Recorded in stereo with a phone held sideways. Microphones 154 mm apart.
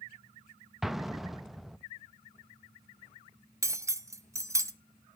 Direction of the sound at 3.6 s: 20° right (ahead or behind).